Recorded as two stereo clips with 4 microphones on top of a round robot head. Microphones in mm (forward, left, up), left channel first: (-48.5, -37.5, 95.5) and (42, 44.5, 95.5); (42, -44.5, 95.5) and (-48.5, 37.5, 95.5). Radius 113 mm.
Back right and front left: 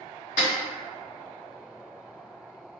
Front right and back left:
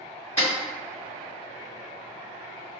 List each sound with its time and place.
0.4 s a snare drum: 120° right, 1.9 m